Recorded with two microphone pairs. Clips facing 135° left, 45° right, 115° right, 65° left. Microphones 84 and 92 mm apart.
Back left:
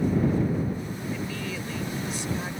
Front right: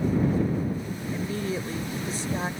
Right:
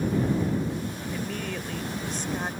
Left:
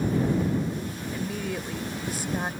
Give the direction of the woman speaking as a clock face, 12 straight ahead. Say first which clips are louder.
Front right 6 dB, left 3 dB; 12 o'clock.